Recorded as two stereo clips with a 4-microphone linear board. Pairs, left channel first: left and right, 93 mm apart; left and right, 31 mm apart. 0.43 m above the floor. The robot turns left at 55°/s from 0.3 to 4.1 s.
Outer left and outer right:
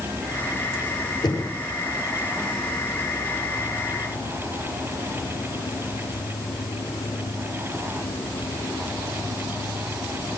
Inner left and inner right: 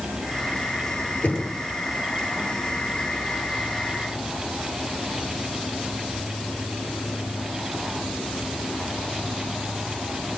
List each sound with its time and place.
0.0 s an insect: 65° right, 2.5 m; by 10.4 s 90° left, 2.5 m
1.2 s knocking: 55° left (ahead or behind), 8.5 m; by 1.5 s 70° left (ahead or behind), 8.5 m